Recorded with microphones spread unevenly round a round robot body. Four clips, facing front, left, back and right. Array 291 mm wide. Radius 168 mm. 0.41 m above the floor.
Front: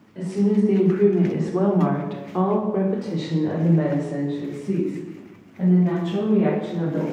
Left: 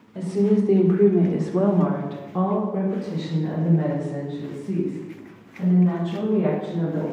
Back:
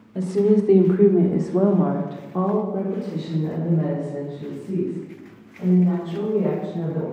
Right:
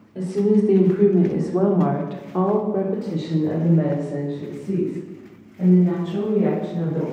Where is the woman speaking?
175° left, 1.7 m; by 7.0 s 30° right, 4 m.